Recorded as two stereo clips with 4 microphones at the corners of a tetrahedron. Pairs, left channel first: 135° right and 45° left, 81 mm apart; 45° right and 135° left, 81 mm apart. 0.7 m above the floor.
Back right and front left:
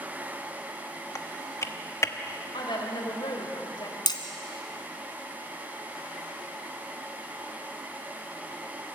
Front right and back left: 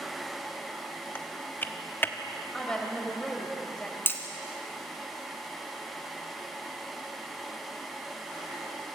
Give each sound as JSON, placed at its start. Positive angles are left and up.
{"t": 1.1, "sound": "typing on a keyboard", "azimuth_deg": -95, "distance_m": 1.0}
{"t": 2.5, "sound": "a woman speaking", "azimuth_deg": -125, "distance_m": 3.5}
{"t": 4.1, "sound": "hammering", "azimuth_deg": -105, "distance_m": 1.8}